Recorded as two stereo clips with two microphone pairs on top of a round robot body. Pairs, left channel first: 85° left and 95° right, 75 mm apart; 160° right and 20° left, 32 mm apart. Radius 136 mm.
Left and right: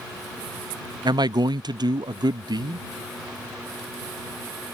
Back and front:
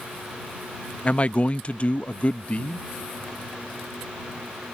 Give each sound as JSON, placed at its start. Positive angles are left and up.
{"t": 1.1, "sound": "a man speaking", "azimuth_deg": -110}